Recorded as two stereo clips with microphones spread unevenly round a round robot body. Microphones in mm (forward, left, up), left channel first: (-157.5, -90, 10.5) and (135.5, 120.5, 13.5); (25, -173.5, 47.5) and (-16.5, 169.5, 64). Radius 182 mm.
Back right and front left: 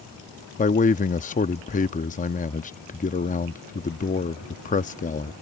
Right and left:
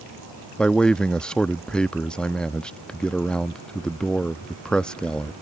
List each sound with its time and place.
0.6 s a man speaking: 160° right